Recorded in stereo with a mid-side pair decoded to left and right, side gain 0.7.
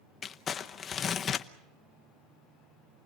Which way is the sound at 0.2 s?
35° left.